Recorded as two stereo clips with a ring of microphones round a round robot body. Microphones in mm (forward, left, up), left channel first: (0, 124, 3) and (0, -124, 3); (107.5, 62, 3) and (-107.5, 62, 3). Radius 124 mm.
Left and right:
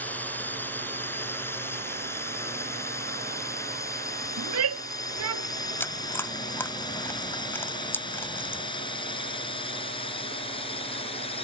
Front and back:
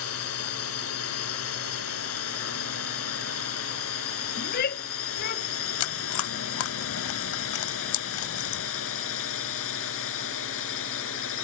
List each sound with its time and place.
0.0 s a drone: 5° left; by 11.4 s 20° left
4.4 s a shout: 55° right
5.8 s chewing: 10° left